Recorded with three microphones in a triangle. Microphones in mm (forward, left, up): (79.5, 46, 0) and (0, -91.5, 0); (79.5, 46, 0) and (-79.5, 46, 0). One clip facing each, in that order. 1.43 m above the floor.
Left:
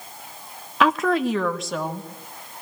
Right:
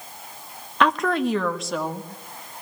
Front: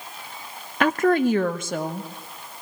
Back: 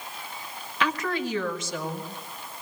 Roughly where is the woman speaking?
Ahead right.